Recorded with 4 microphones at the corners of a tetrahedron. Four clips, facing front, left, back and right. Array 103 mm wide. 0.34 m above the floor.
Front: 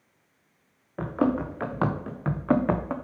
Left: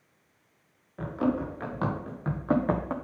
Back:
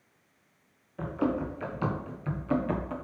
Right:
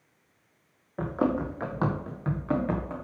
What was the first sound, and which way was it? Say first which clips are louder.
Running footsteps: right 1 dB, front 4 dB; 30° right.